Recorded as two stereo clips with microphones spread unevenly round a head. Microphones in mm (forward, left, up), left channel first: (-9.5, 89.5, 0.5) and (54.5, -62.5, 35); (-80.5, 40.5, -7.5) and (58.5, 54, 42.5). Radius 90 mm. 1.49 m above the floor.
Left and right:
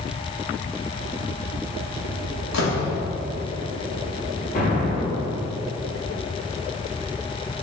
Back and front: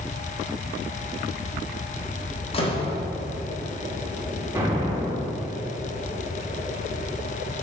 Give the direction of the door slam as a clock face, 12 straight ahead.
8 o'clock.